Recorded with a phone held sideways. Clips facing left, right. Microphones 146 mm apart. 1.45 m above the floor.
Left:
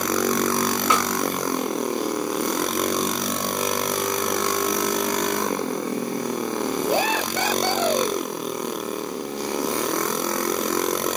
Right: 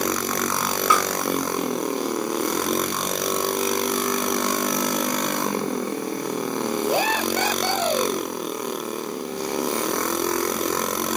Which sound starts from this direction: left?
A snare drum, at 0.9 s.